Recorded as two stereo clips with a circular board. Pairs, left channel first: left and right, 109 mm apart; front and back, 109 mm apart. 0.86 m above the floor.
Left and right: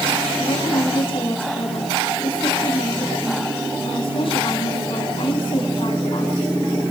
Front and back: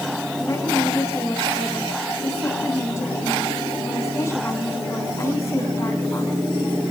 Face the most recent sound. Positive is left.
turn(degrees=60)